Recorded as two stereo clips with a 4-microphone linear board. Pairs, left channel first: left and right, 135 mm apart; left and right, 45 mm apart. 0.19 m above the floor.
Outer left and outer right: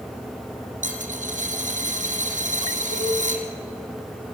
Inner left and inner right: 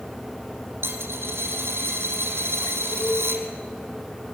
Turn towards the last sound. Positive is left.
turn(degrees=80)